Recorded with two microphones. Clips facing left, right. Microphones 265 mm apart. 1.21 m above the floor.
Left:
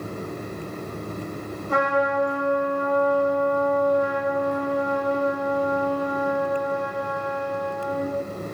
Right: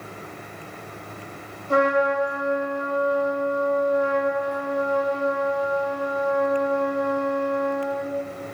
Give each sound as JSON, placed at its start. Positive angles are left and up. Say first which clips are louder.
{"t": 1.7, "sound": "a trumpet", "louder": "right 3 dB", "side_deg": -45, "distance_m": 1.8}